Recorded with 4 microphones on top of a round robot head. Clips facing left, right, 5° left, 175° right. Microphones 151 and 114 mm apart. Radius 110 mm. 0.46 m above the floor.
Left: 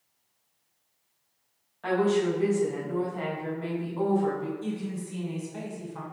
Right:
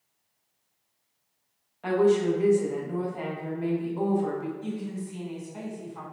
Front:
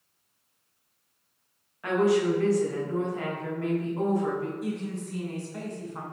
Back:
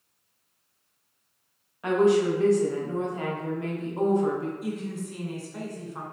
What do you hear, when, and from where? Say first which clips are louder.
1.8 s a woman speaking: right 3 dB, back 2 dB; 145° right, 0.8 m
4.6 s a woman speaking: even, even; 100° left, 1.7 m